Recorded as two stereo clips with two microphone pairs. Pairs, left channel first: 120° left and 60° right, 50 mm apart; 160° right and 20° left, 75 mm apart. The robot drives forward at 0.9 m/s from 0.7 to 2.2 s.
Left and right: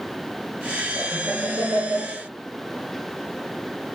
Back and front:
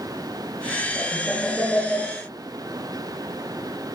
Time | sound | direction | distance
0.9 | laughter | 80° right | 5 m